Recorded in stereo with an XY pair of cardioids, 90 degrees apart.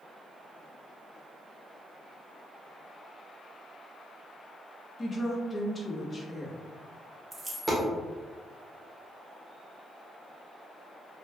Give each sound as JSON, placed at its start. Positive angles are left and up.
{"t": 5.0, "sound": "a woman speaking", "azimuth_deg": 30, "distance_m": 0.8}
{"t": 7.3, "sound": "a dropped coin", "azimuth_deg": -20, "distance_m": 0.8}